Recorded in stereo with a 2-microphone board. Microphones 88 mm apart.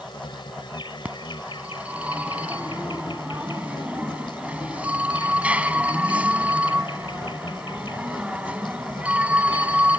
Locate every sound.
0.0 s an insect: 65° left (ahead or behind)
1.1 s a phone ringing: 15° right (ahead or behind)